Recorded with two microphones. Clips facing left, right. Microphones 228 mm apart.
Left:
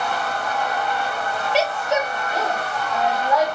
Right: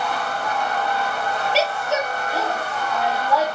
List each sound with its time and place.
1.5 s a woman speaking: 15° left (ahead or behind), 1.1 m